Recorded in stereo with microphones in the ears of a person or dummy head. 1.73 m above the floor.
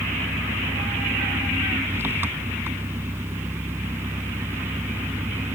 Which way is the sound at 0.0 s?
10° right (ahead or behind).